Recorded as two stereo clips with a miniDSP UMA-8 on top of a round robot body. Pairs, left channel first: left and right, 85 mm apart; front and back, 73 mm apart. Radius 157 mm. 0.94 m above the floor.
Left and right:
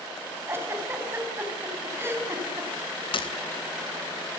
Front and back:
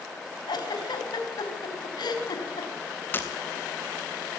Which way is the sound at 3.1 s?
65° left.